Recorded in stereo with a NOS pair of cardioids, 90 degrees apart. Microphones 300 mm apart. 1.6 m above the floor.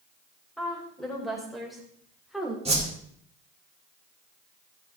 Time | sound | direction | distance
0.6 | a woman speaking | straight ahead | 6.5 m
2.6 | a whoosh | 20° right | 5 m